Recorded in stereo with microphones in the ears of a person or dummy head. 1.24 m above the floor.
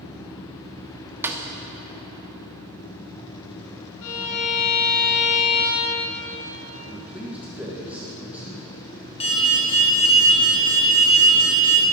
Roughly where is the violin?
Left.